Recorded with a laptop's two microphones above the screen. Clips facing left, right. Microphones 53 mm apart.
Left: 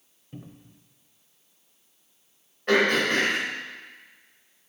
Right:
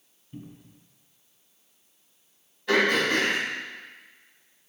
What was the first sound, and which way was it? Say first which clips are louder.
A cupboard door: right 1 dB; 70° left (ahead or behind).